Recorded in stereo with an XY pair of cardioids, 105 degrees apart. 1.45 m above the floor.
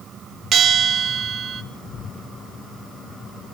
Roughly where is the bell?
Ahead right.